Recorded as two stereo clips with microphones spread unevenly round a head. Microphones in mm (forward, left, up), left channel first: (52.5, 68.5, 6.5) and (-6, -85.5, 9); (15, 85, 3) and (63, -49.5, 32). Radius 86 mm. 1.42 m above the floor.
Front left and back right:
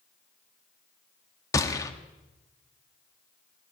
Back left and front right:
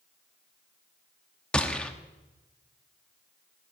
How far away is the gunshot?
About 0.9 m.